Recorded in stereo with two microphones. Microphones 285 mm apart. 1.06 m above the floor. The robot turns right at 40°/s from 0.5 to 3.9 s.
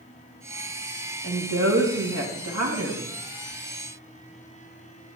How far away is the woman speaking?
About 1.9 m.